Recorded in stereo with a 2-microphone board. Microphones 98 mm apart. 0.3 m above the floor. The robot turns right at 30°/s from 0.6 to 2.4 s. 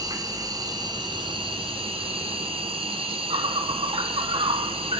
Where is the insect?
135° right, 1.4 m; by 5.0 s 80° right, 1.4 m.